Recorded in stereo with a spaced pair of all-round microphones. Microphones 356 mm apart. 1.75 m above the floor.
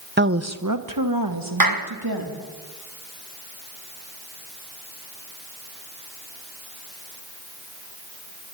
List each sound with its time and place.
0.2 s a woman speaking: 30° right (ahead or behind), 1.2 m; by 2.4 s 80° right, 4 m
1.6 s a clap: 70° right (ahead or behind), 1.6 m